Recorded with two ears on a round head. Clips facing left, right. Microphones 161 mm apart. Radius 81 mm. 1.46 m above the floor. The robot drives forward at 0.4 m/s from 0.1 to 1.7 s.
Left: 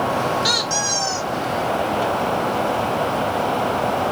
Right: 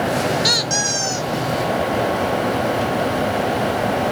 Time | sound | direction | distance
0.4 | a squeak | 25° right (ahead or behind) | 0.5 m